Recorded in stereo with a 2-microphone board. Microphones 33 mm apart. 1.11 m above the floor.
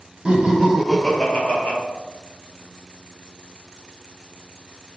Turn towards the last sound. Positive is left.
turn(degrees=40)  # may be behind; listen again after turning